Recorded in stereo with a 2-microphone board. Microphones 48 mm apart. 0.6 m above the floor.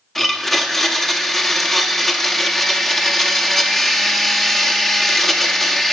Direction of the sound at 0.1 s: 5° left (ahead or behind).